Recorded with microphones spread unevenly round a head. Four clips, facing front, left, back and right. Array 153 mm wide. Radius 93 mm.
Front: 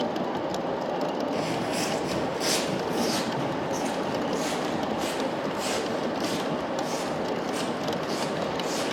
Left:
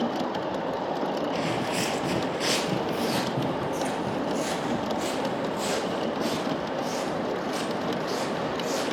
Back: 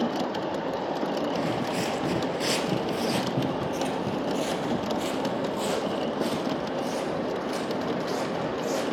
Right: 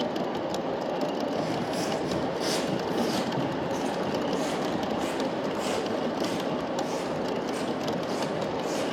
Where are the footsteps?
95° left, 1.9 m; by 8.8 s 170° right, 4.5 m.